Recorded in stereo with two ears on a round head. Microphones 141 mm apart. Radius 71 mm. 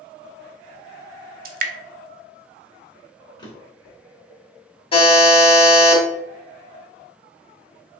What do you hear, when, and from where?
1.4 s dripping: 60° right (ahead or behind), 0.5 m
3.4 s a drawer: 30° left (ahead or behind), 1.0 m
4.9 s a buzzer: 35° left (ahead or behind), 1.3 m